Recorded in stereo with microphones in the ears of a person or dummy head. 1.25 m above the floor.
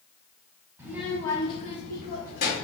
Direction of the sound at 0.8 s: 20° right (ahead or behind).